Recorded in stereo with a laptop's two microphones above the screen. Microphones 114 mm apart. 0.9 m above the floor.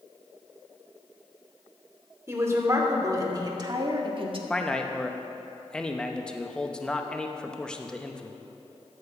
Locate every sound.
2.3 s a woman speaking: 25° right (ahead or behind), 2.5 m; by 4.4 s 50° right (ahead or behind), 1.7 m
4.5 s a man speaking: 10° left (ahead or behind), 0.6 m